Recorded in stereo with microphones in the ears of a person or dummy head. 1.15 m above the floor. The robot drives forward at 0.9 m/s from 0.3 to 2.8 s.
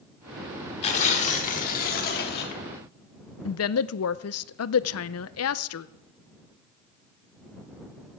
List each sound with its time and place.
0.8 s tearing paper: 35° left (ahead or behind), 3.5 m; by 2.6 s 55° left (ahead or behind), 2.5 m
3.5 s a woman speaking: 70° left (ahead or behind), 0.5 m